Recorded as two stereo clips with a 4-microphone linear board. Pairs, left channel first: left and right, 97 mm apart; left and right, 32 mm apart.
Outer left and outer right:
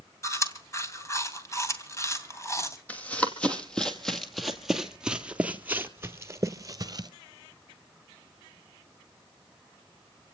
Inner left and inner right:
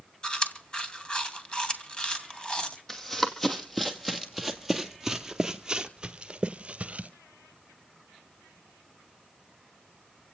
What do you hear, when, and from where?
0.2 s chewing: 30° left (ahead or behind), 2.5 m
2.9 s running footsteps: 15° left (ahead or behind), 2.5 m; by 7.1 s 40° right (ahead or behind), 1.6 m